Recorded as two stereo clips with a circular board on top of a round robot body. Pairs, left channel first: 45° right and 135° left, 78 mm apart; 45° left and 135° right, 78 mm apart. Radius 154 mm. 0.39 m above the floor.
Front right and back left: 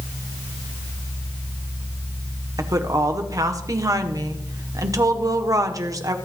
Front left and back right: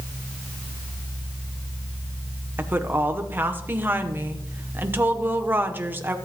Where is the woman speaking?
165° left, 1.5 m.